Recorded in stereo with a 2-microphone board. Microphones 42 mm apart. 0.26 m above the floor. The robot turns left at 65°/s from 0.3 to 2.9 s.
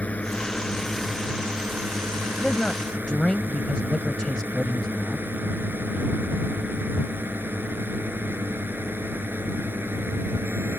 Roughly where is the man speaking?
Centre.